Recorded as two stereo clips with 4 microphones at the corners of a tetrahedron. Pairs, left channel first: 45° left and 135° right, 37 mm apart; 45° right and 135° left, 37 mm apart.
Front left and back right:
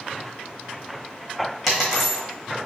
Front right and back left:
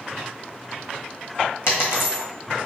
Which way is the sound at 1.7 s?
45° right.